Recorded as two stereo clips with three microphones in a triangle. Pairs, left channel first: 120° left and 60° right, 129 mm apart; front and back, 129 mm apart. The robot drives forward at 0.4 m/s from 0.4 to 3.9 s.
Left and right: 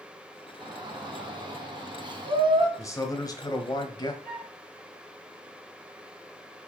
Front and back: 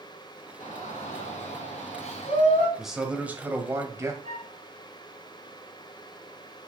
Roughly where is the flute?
Behind.